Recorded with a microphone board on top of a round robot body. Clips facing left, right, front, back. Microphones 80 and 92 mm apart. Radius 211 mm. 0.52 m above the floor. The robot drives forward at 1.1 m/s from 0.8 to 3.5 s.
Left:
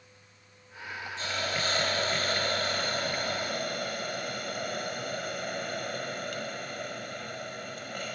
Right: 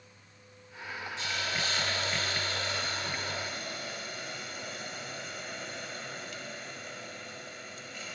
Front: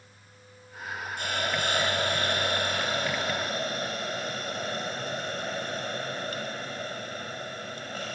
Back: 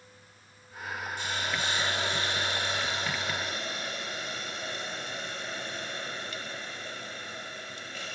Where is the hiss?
35° left, 8 m; by 8.2 s 50° left, 6.5 m.